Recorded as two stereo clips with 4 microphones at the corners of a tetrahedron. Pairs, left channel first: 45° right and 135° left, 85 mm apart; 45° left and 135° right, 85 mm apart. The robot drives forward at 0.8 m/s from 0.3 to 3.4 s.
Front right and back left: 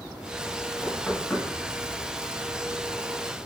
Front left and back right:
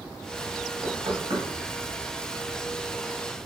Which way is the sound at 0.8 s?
110° right.